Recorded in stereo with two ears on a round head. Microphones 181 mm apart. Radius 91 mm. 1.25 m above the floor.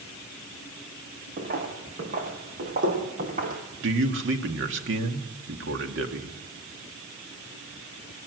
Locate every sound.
1.4 s footsteps: 45° right (ahead or behind), 5 m; by 3.6 s 40° right (ahead or behind), 4 m
3.8 s a man speaking: 60° right (ahead or behind), 2 m